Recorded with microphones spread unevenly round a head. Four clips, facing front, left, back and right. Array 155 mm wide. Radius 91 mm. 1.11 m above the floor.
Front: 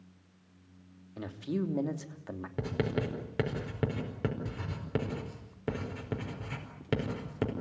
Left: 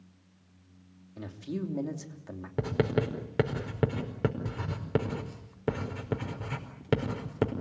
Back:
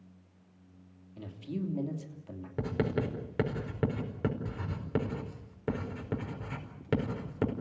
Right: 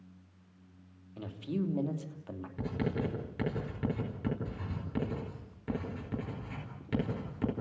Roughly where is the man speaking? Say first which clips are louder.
Right 1 dB, front 4 dB; ahead.